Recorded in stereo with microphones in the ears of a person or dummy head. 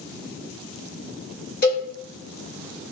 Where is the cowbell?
55° left (ahead or behind), 1.7 m.